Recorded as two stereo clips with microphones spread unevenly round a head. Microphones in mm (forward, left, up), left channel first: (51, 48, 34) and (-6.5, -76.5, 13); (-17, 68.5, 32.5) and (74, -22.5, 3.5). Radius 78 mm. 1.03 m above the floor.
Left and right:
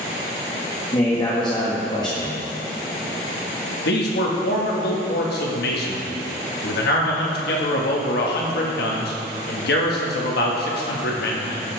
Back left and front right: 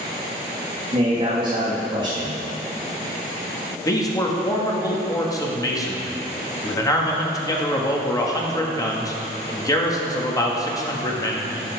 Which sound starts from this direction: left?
A man speaking, at 3.9 s.